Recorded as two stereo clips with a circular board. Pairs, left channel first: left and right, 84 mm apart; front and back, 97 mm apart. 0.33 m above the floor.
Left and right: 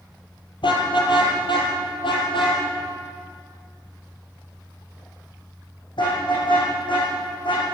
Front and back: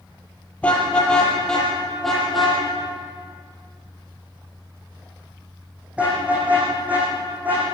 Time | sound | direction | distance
0.6 | a car horn | 75° left | 5.5 m